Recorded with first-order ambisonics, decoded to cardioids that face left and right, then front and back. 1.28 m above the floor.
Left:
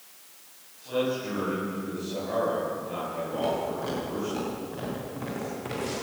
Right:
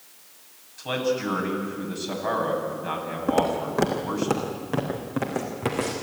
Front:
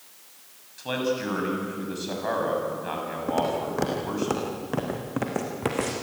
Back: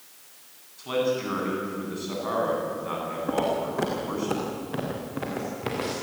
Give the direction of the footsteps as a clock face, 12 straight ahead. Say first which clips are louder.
Right 7 dB, even; 3 o'clock.